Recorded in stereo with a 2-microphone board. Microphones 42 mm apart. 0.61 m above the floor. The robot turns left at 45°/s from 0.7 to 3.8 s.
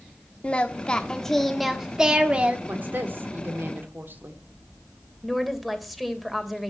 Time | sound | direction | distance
0.4 | singing | 35° left | 1.3 m
2.7 | a woman speaking | 55° right | 2 m
5.2 | a woman speaking | 5° right (ahead or behind) | 2 m